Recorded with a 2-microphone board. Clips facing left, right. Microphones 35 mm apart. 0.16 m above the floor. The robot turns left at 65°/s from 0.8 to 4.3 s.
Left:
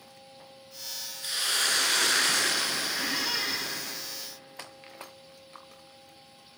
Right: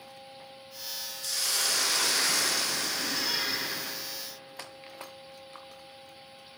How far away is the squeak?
About 2.5 m.